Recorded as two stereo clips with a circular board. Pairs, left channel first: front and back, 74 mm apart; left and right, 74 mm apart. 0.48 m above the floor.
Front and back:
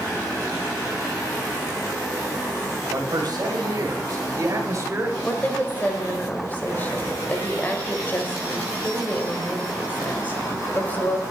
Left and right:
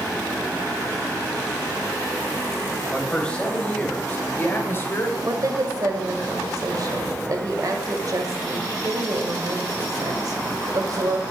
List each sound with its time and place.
2.9 s a man speaking: 165° left, 3 m; by 5.1 s 135° left, 2.0 m
5.2 s a woman speaking: 65° right, 2.0 m